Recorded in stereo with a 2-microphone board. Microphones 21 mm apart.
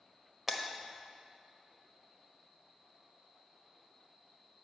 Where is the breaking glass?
10° right (ahead or behind), 1.2 m.